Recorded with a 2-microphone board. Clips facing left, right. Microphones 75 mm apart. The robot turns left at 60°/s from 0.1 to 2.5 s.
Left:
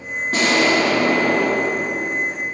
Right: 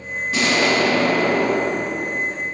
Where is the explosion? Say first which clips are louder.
Left 2 dB; 55° left, 1.4 m; by 2.2 s 60° right, 1.4 m.